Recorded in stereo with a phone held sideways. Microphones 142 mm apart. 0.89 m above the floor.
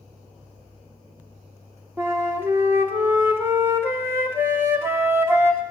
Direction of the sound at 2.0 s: 15° right (ahead or behind).